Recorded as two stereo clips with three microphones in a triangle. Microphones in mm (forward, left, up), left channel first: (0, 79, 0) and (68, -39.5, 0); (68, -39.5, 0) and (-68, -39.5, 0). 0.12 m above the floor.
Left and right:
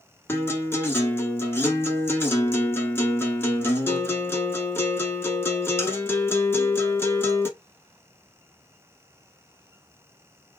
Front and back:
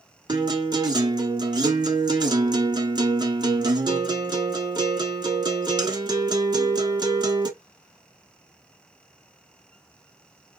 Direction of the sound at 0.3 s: 175° left.